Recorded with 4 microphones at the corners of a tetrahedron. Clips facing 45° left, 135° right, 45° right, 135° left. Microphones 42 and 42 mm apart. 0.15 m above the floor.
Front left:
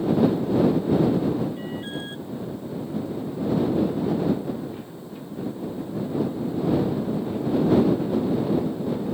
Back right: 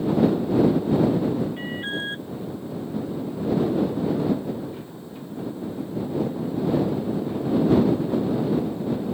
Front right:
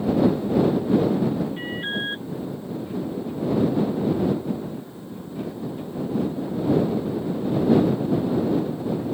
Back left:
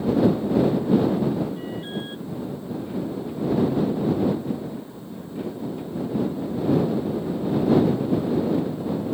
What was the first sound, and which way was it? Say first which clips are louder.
An alarm: back right 3 dB, front right 3 dB; 85° right.